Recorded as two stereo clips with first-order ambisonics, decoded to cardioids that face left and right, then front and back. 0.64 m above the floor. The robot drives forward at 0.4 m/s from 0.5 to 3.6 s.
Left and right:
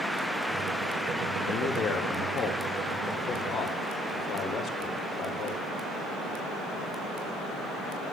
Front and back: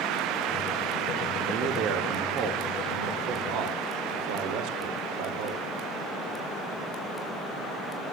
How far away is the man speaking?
About 1.4 m.